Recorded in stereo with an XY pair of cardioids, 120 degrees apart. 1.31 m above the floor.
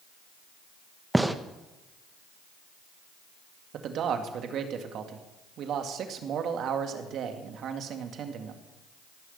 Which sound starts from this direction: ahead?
A gunshot, at 1.1 s.